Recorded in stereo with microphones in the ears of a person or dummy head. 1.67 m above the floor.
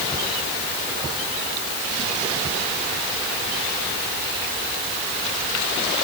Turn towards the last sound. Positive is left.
No sound to turn to.